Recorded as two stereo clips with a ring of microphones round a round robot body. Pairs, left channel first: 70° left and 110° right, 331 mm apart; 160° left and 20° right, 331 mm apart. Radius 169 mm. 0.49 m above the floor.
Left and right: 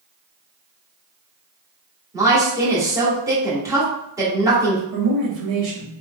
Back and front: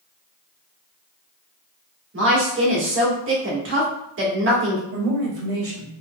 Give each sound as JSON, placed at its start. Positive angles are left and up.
{"t": 2.1, "sound": "a woman speaking", "azimuth_deg": -40, "distance_m": 1.5}
{"t": 4.9, "sound": "a man speaking", "azimuth_deg": -70, "distance_m": 2.0}